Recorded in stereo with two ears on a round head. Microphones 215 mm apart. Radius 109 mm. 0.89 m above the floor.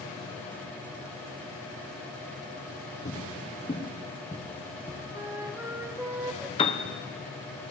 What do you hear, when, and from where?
3.0 s footsteps: 30° left (ahead or behind), 2 m; by 5.0 s 10° left (ahead or behind), 3 m
5.1 s a flute: 10° right (ahead or behind), 1.1 m
6.6 s a piano: 20° left (ahead or behind), 0.9 m